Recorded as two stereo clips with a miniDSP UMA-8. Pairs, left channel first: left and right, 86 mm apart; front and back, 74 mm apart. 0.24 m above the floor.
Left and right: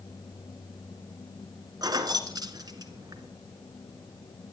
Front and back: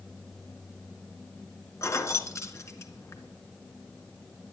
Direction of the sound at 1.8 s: 50° right.